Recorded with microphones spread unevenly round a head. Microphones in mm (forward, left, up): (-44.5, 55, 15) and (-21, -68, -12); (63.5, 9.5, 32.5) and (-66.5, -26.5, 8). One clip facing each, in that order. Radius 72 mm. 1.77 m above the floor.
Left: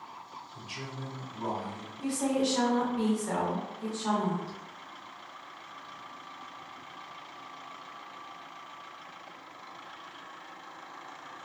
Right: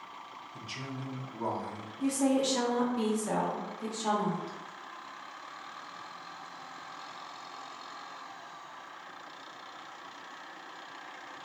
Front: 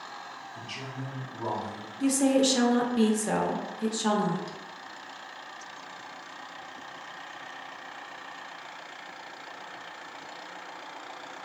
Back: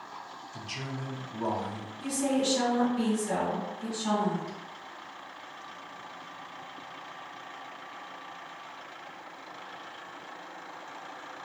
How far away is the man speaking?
About 0.8 m.